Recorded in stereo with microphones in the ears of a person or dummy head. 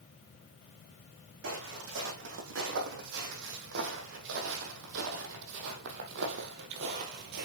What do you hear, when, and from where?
1.4 s footsteps: 75° right (ahead or behind), 5 m; by 7.5 s 55° right (ahead or behind), 2 m